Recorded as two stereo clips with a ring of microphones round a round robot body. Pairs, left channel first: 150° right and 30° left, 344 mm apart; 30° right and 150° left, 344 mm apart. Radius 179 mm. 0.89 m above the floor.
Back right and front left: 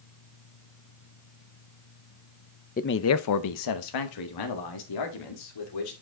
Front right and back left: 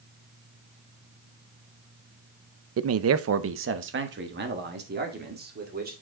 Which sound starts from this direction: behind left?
A man speaking, at 2.8 s.